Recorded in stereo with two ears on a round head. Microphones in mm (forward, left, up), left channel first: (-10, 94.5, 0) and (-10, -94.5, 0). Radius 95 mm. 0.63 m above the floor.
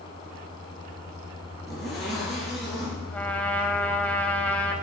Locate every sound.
1.7 s a zipper: centre (ahead or behind), 3.5 m
3.1 s a trumpet: 10° left (ahead or behind), 0.9 m